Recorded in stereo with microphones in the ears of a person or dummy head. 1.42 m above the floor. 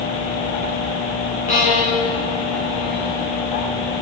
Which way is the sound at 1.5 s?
40° left (ahead or behind).